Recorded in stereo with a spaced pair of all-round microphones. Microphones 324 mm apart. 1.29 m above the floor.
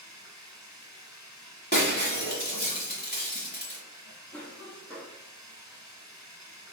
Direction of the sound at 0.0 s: 10° right (ahead or behind).